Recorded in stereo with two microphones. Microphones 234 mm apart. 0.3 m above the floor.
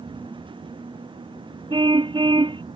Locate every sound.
1.7 s a car horn: 20° right (ahead or behind)